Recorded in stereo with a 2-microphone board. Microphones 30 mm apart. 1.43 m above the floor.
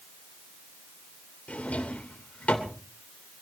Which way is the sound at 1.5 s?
50° left (ahead or behind).